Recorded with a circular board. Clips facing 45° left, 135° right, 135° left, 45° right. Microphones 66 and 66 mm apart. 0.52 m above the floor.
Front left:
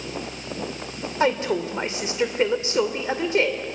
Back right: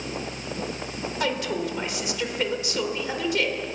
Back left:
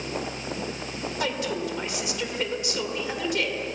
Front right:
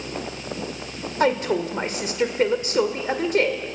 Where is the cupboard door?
No cupboard door in this recording.